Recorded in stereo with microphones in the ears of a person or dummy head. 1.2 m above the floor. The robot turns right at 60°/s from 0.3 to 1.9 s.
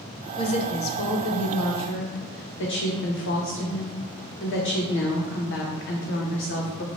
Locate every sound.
0.4 s a woman speaking: 25° left, 0.7 m; by 7.0 s 120° left, 0.7 m